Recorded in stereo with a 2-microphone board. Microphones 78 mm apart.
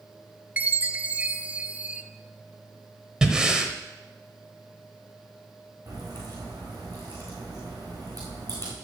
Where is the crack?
60° right (ahead or behind), 4.5 m.